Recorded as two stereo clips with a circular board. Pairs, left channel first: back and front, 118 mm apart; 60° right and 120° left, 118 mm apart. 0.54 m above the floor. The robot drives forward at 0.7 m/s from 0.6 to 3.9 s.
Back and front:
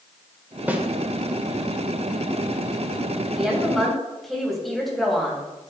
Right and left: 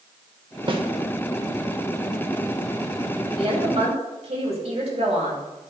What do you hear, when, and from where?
0.7 s a snare drum: 75° left, 1.1 m; by 0.8 s 80° left, 1.1 m
3.3 s a woman speaking: 85° left, 3.5 m; by 5.7 s 90° left, 3 m